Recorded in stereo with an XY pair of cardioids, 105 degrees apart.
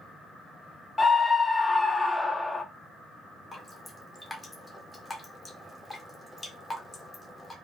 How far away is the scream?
About 0.7 m.